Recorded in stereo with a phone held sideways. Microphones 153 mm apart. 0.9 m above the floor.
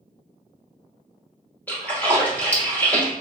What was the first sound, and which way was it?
A splash, 10° left (ahead or behind).